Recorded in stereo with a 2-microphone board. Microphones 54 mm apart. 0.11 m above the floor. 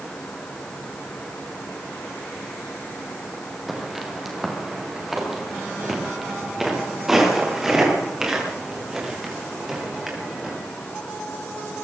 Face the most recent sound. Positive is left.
turn(degrees=-10)  # may be behind; listen again after turning